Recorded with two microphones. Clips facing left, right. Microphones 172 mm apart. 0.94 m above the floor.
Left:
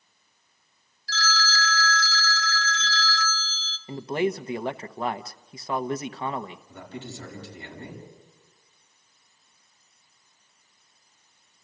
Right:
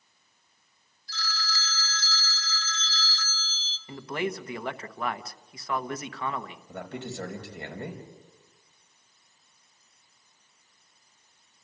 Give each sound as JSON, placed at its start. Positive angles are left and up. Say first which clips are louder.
{"t": 1.1, "sound": "a phone ringing", "louder": "left 8 dB", "side_deg": 85, "distance_m": 1.2}
{"t": 3.9, "sound": "a man speaking", "louder": "left 6 dB", "side_deg": 25, "distance_m": 0.9}
{"t": 6.7, "sound": "a man speaking", "louder": "right 2 dB", "side_deg": -65, "distance_m": 5.0}